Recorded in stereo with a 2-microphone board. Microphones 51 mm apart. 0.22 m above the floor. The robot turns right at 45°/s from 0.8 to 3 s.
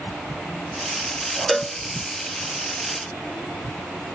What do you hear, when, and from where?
1.5 s a cowbell: 5° left (ahead or behind), 0.5 m; by 1.8 s 15° left (ahead or behind), 0.5 m